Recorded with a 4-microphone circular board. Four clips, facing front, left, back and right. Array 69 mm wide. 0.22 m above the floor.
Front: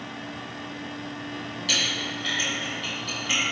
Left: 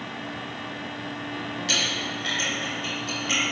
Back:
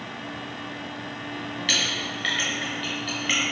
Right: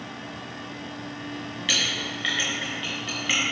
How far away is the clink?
About 1.5 m.